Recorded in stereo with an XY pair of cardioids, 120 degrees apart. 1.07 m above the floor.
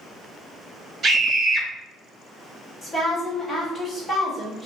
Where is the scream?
35° right, 1.7 m.